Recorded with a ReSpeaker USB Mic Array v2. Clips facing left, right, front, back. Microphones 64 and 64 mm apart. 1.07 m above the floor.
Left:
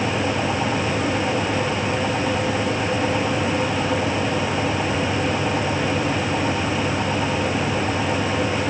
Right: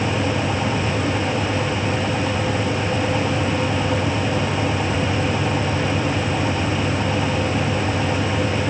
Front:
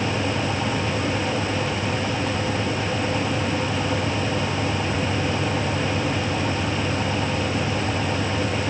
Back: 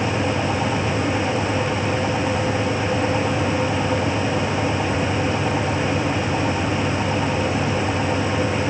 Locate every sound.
Only background noise.